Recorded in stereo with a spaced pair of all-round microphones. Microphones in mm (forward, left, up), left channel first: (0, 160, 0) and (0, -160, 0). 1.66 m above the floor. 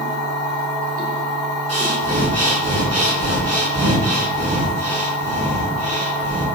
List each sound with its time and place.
0.0 s a machine running: 25° right (ahead or behind), 0.9 m
1.7 s breathing: 50° right (ahead or behind), 0.6 m